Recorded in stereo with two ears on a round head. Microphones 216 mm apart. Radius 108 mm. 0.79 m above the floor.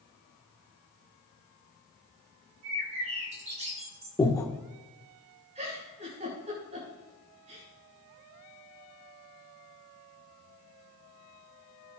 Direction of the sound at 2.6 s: 30° right (ahead or behind).